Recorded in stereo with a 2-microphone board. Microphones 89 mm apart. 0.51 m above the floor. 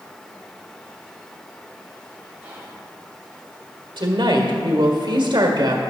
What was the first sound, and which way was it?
Whispering, 20° right (ahead or behind).